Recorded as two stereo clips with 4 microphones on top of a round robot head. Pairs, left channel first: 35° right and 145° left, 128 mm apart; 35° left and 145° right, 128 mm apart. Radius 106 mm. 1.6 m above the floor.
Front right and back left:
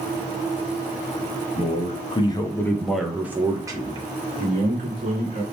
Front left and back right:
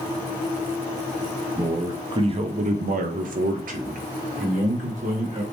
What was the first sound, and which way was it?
A man speaking, 70° right.